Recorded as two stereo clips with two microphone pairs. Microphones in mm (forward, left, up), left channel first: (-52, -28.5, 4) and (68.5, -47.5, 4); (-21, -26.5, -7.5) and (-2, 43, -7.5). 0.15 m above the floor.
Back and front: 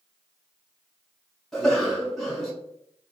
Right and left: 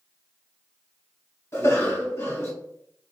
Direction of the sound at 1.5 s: 105° right.